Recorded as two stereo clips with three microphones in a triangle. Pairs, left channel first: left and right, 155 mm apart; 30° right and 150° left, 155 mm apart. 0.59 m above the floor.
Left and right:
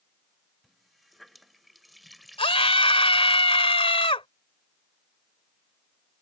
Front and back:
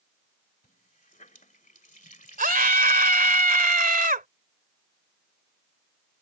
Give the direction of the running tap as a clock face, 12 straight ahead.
12 o'clock.